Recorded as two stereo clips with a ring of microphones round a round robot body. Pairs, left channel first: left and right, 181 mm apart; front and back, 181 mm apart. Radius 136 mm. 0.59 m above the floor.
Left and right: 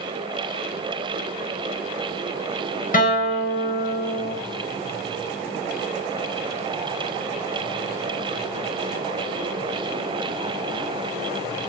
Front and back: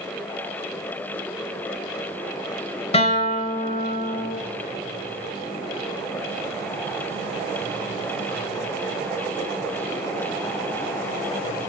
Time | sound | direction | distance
2.9 | a guitar | 55° left | 3.5 m